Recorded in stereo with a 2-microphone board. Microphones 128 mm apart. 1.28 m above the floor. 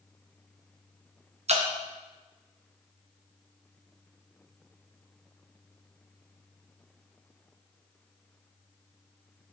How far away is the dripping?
About 0.5 m.